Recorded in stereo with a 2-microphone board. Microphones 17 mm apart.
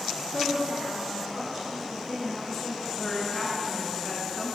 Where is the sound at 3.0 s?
20° left (ahead or behind), 1.4 m.